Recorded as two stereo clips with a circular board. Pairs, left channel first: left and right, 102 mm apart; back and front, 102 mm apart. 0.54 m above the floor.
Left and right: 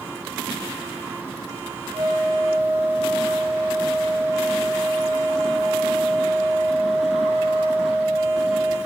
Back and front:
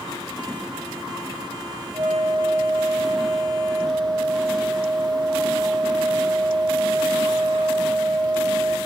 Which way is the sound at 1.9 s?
40° right.